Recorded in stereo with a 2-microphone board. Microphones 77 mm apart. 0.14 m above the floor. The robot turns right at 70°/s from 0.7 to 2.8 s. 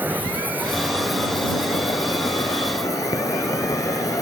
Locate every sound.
0.0 s an insect: 30° right; by 4.2 s 115° left